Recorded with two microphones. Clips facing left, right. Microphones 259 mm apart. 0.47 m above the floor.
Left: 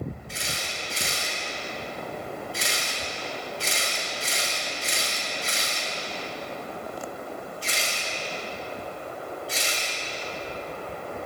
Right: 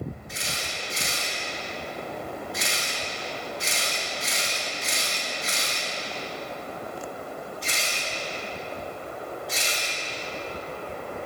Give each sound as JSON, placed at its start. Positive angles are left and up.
{"t": 0.3, "sound": "a camera shutter", "side_deg": 30, "distance_m": 6.5}